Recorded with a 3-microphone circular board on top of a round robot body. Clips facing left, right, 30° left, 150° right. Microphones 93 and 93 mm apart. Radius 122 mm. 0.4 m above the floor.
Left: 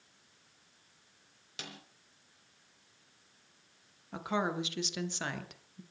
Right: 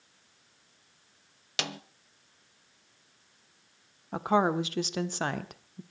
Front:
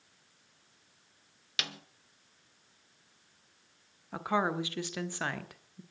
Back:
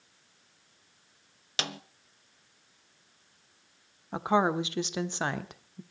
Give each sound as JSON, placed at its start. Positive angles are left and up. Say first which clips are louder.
{"t": 1.6, "sound": "a snare drum", "louder": "right 12 dB, back 5 dB", "azimuth_deg": -90, "distance_m": 1.1}
{"t": 4.1, "sound": "a woman speaking", "louder": "right 8 dB, back 5 dB", "azimuth_deg": -90, "distance_m": 1.5}